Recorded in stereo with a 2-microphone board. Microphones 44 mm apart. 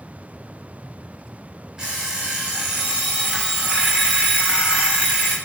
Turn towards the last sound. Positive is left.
turn(degrees=-15)  # may be behind; listen again after turning